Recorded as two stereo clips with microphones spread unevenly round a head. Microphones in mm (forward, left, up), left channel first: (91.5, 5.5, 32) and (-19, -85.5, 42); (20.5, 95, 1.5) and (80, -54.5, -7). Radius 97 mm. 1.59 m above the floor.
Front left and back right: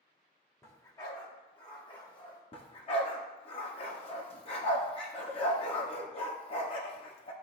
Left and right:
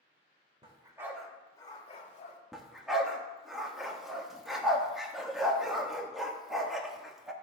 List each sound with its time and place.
0.6 s a dog barking: 30° right, 1.6 m; by 2.4 s 105° left, 2 m
2.5 s a dog barking: 25° left, 1.1 m